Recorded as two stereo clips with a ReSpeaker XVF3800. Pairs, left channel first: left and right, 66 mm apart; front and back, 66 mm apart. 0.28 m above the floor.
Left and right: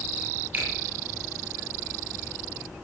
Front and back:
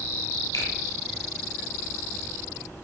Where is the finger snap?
30° right, 8 m.